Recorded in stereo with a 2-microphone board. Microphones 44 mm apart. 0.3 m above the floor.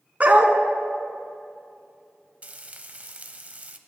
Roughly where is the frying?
Right.